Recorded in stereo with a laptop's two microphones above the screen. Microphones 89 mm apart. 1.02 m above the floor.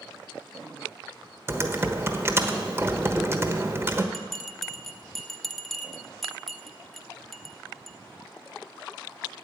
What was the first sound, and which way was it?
Typing on a keyboard, 25° right (ahead or behind).